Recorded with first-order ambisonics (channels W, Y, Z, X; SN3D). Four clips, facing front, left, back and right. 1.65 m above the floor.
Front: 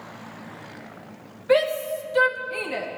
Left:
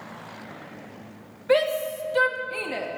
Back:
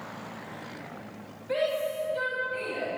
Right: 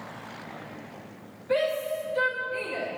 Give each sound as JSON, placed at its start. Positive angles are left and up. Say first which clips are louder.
{"t": 1.5, "sound": "a shout", "louder": "left 4 dB, front 7 dB", "azimuth_deg": 50, "distance_m": 2.5}